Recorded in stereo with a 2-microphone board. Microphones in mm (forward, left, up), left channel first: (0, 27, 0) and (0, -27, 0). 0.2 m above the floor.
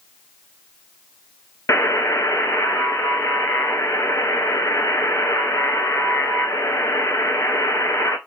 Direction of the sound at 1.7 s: 75° left (ahead or behind).